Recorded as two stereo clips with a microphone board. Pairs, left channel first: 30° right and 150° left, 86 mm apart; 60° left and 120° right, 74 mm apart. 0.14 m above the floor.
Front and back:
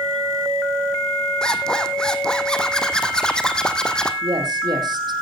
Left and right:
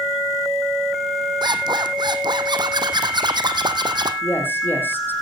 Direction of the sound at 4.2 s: 125° left.